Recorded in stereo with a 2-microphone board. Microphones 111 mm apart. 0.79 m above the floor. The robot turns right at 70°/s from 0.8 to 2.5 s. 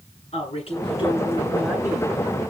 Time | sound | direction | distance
0.3 | a woman speaking | 120° left | 8 m